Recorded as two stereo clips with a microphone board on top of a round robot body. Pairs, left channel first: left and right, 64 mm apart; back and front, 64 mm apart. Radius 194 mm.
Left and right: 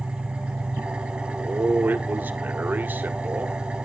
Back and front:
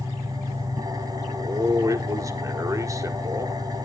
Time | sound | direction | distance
0.0 | an engine running | 15° right | 3.5 m
1.3 | a man speaking | 30° right | 1.9 m